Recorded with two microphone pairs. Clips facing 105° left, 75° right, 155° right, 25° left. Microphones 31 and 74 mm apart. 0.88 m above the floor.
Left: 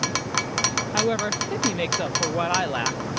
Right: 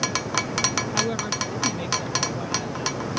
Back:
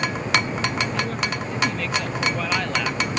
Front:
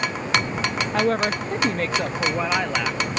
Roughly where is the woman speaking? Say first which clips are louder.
Left 2 dB, front 5 dB; ahead left.